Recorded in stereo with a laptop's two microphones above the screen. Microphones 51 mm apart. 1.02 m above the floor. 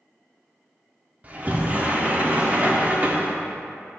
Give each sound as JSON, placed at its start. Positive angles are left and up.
{"t": 1.2, "sound": "a sliding door", "side_deg": -30, "distance_m": 0.6}